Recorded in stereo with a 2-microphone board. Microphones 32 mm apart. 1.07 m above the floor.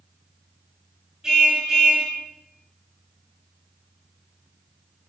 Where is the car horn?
20° right (ahead or behind), 8.5 m.